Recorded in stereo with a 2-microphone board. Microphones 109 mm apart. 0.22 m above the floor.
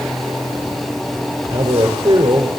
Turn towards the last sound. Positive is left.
turn(degrees=-45)  # may be behind; listen again after turning